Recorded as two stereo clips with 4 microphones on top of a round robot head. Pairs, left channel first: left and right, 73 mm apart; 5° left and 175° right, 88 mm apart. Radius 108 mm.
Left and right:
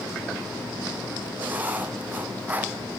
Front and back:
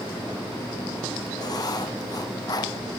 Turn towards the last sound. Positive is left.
turn(degrees=-25)